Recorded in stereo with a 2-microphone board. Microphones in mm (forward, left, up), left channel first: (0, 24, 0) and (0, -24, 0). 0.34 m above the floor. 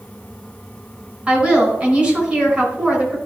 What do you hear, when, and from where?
1.3 s a woman speaking: 25° right (ahead or behind), 4 m